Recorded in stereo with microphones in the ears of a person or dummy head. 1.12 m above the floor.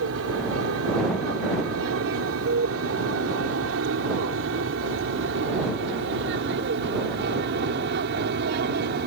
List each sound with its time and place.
0.0 s an aircraft: 70° right (ahead or behind); by 9.1 s 55° right (ahead or behind)